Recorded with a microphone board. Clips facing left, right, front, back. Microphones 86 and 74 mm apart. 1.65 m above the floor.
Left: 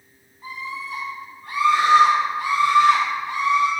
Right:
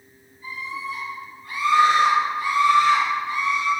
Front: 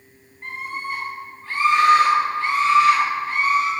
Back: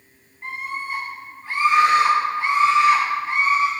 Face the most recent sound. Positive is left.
turn(degrees=115)